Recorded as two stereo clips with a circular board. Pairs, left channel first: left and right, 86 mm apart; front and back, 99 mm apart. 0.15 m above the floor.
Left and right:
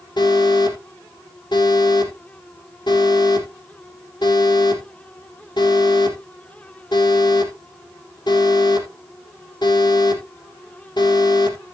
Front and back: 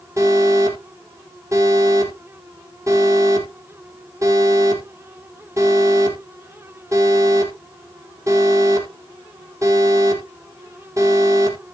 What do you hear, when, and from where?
0.2 s an alarm: 125° left, 5 m